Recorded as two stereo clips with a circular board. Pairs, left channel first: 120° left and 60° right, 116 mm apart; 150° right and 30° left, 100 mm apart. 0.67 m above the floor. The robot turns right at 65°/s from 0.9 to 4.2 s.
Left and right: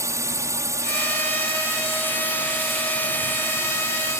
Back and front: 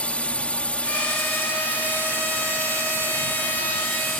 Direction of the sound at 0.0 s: 85° right.